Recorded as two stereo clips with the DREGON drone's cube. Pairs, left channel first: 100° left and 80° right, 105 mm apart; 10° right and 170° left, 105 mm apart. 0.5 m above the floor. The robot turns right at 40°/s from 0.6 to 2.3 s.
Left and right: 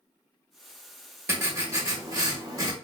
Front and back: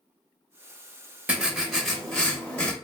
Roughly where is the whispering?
I don't hear whispering.